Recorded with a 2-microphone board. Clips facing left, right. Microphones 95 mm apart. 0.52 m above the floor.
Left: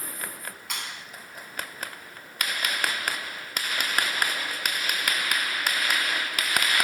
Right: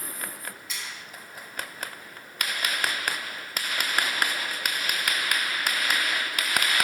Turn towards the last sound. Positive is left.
turn(degrees=60)  # may be behind; listen again after turning